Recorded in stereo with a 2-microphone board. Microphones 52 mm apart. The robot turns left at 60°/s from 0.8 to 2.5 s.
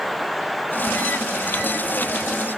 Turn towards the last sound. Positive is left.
No sound to turn to.